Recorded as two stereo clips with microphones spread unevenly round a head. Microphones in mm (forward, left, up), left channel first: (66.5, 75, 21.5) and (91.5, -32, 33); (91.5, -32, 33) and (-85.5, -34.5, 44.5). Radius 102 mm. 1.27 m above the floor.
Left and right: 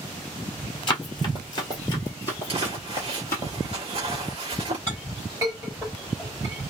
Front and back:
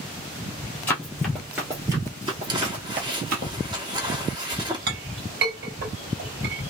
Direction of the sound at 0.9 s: 80° left.